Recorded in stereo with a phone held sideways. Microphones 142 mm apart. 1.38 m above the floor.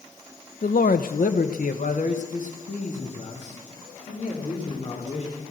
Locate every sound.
0.6 s a man speaking: 65° left (ahead or behind), 0.8 m; by 5.4 s 50° left (ahead or behind), 5 m